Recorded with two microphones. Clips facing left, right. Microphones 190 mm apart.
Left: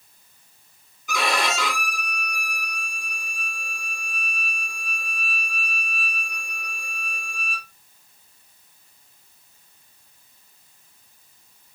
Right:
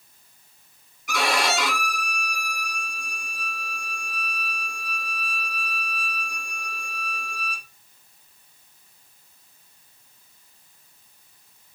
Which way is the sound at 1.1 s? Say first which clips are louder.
Right 1 dB; 75° right (ahead or behind).